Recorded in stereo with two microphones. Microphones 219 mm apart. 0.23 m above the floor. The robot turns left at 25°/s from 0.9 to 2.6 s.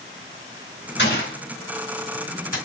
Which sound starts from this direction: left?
A gunshot, at 1.0 s.